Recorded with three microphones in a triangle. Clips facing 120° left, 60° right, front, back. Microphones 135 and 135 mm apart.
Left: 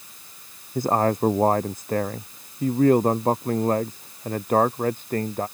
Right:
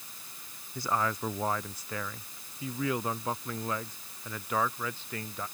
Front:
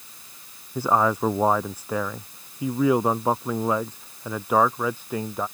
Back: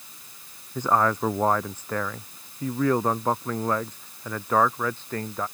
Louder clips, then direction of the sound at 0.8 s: Left 10 dB, front 1 dB; 80° left.